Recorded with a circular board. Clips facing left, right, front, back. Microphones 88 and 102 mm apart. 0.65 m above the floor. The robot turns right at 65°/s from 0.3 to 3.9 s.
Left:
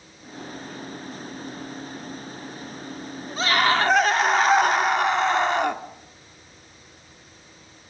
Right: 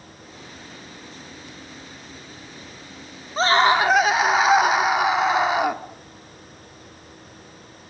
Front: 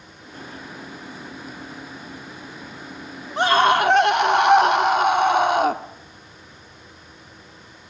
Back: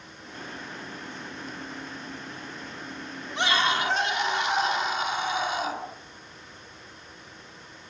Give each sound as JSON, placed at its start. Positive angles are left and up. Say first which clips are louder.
{"t": 3.4, "sound": "a scream", "louder": "right 4 dB, front 9 dB", "azimuth_deg": -45, "distance_m": 1.1}